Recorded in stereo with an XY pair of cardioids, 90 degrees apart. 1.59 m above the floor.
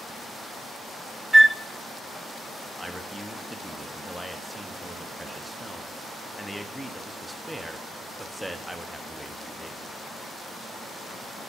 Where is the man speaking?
Straight ahead, 1.0 m.